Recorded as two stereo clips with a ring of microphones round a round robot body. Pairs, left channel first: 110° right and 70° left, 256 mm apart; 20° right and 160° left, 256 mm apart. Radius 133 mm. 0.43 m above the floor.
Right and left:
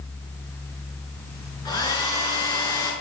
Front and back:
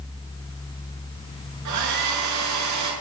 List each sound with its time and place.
1.6 s a hair dryer: 175° left, 7 m